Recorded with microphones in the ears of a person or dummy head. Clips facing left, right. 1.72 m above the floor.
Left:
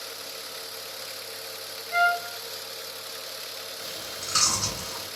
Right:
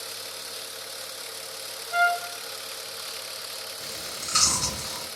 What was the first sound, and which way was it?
A trumpet, 35° left (ahead or behind).